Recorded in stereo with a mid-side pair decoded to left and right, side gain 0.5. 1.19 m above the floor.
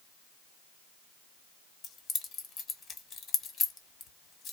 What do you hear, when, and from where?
1.8 s keys jangling: 50° left, 1.3 m